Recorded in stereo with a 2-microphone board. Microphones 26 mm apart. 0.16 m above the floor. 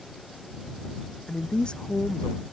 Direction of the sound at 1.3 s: 40° left (ahead or behind).